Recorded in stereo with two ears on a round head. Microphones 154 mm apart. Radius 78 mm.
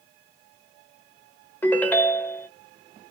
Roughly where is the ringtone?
Centre.